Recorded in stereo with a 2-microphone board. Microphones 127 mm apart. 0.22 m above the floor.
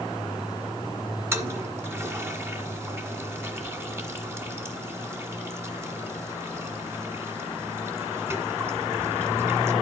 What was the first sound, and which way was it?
A toilet flushing, 20° right (ahead or behind).